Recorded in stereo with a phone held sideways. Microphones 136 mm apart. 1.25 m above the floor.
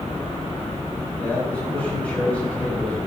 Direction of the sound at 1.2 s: 10° left (ahead or behind).